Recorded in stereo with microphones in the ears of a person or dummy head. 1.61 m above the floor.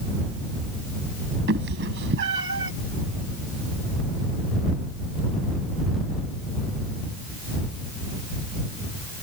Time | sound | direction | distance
1.5 | a cat meowing | 65° right (ahead or behind) | ?